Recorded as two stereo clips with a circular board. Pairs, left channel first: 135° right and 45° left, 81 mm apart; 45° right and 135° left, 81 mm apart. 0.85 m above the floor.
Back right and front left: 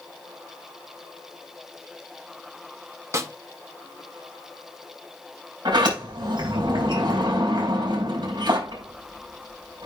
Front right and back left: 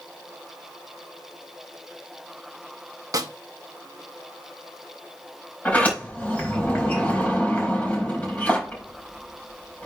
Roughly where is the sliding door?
Ahead left.